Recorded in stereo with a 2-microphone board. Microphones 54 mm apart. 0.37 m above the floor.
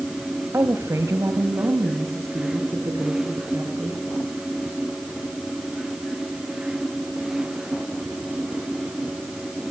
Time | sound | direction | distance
0.5 | a woman speaking | 55° right (ahead or behind) | 1.4 m